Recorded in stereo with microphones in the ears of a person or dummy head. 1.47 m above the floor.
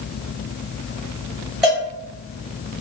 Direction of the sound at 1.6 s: 5° right (ahead or behind).